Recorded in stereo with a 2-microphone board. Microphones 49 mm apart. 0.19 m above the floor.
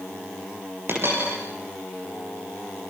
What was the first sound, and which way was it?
A dropped coin, 50° right (ahead or behind).